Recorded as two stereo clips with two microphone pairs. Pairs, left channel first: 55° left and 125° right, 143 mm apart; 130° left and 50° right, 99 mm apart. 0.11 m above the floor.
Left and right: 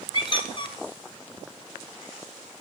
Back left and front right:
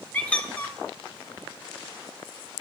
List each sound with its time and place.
0.1 s a squeak: 65° left, 0.8 m